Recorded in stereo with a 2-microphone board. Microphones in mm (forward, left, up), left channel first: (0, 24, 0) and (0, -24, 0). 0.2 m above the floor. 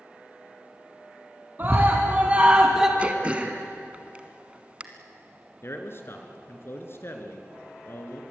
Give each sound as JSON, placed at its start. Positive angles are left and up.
{"t": 1.6, "sound": "a scream", "side_deg": -40, "distance_m": 2.5}
{"t": 3.0, "sound": "throat clearing", "side_deg": -25, "distance_m": 1.7}
{"t": 5.6, "sound": "a man speaking", "side_deg": 50, "distance_m": 3.0}